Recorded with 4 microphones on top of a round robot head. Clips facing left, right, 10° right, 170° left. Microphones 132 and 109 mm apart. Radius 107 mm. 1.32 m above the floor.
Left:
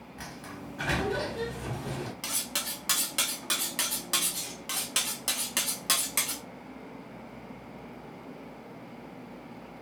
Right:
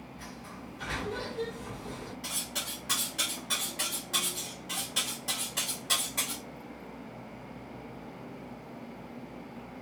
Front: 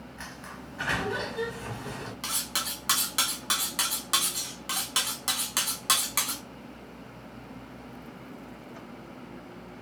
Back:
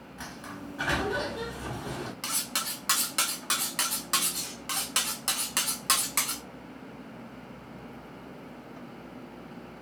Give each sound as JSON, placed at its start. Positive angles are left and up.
{"t": 0.2, "sound": "a sliding door", "azimuth_deg": 95, "distance_m": 0.8}
{"t": 2.2, "sound": "cutlery clinking", "azimuth_deg": 75, "distance_m": 0.8}